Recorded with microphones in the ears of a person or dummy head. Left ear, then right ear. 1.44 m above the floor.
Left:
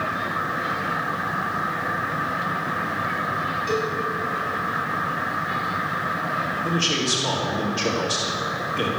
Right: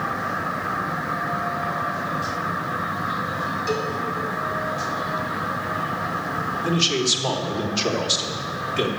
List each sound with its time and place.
3.7 s a cowbell: 20° right (ahead or behind), 6.5 m
6.6 s a man speaking: 40° right (ahead or behind), 3.5 m